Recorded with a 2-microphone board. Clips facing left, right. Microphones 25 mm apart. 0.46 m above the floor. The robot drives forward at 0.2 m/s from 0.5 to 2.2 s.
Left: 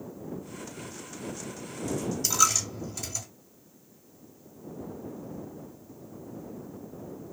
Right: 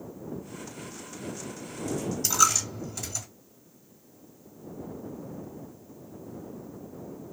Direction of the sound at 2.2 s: Centre (ahead or behind).